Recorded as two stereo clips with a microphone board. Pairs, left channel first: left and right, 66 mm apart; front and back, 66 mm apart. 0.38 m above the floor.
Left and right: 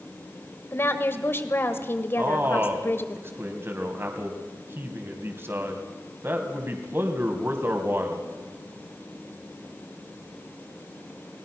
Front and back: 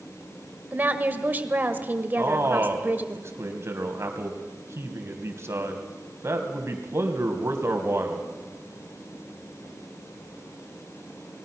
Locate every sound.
0.7 s a woman speaking: 125° left, 1.7 m
2.2 s a man speaking: 140° right, 2.5 m